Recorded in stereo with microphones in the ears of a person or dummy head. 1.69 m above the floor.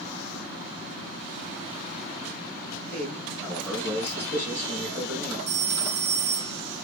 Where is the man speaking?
10° left (ahead or behind), 3 m.